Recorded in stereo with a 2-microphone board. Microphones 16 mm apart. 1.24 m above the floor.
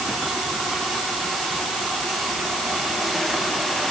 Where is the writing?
No writing in this recording.